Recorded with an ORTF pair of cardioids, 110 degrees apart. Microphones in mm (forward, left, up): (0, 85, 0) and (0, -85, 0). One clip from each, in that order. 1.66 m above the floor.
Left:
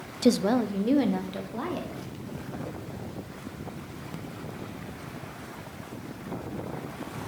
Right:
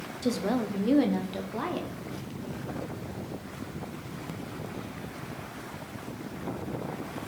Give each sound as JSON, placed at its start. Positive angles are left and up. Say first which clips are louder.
{"t": 0.2, "sound": "a woman speaking", "louder": "left 6 dB", "azimuth_deg": 40, "distance_m": 0.5}